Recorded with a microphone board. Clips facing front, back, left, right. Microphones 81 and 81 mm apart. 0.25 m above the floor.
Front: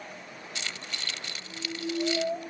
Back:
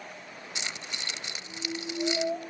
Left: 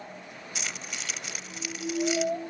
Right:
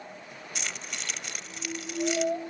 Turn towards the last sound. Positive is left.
turn(degrees=170)